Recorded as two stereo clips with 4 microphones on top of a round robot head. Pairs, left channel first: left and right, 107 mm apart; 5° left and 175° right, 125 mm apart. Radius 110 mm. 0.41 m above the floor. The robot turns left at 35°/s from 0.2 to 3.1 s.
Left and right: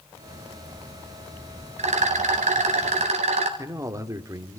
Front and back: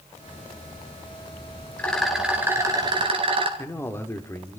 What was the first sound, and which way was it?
A rattle, 75° right.